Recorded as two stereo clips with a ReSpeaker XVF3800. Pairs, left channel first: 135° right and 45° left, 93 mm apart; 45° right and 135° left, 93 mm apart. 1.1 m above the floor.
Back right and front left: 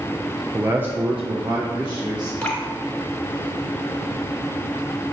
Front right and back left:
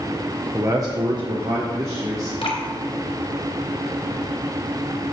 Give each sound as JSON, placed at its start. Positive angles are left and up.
{"t": 0.5, "sound": "a man speaking", "azimuth_deg": 100, "distance_m": 0.6}
{"t": 2.4, "sound": "dripping", "azimuth_deg": -55, "distance_m": 2.5}